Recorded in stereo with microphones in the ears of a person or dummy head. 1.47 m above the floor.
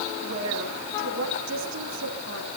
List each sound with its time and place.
0.2 s a woman speaking: 80° right, 4.5 m